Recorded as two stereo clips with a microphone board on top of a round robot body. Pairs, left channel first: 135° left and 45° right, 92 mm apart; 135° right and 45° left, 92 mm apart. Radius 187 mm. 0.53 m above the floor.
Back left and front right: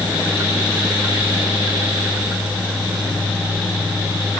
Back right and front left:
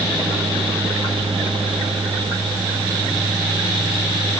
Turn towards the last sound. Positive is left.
No sound to turn to.